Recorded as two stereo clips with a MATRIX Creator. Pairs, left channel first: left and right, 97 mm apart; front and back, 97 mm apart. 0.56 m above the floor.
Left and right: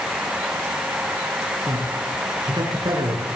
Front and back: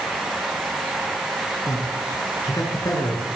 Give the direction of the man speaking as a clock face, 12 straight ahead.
2 o'clock.